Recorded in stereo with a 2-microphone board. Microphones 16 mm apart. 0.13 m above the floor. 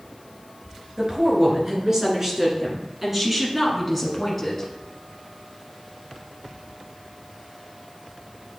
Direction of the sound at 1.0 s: 40° right (ahead or behind).